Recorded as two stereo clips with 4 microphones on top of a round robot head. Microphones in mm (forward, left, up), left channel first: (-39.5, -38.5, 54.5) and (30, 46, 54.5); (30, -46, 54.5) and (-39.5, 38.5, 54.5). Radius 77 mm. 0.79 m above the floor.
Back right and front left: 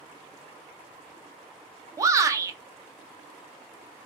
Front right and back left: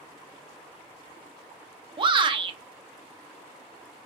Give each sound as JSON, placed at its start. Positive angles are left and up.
{"t": 2.0, "sound": "a shout", "azimuth_deg": 105, "distance_m": 0.5}